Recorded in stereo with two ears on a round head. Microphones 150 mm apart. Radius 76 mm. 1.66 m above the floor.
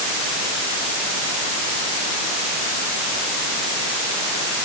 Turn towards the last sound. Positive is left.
No sound to turn to.